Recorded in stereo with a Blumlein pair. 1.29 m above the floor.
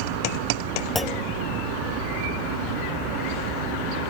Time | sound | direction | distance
0.9 | a clunk | 10° left | ?